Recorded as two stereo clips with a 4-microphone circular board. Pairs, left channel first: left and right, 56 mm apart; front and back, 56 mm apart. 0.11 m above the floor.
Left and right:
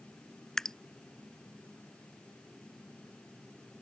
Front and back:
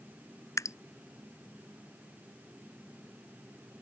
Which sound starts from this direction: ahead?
Dripping, at 0.6 s.